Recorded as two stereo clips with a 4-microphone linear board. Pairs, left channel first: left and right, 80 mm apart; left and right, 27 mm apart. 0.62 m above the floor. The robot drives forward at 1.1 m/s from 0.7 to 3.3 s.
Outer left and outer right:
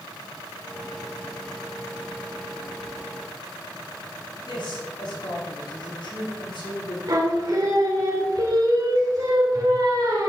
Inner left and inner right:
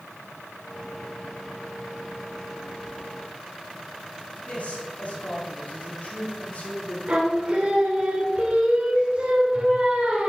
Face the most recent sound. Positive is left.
turn(degrees=-50)  # may be behind; listen again after turning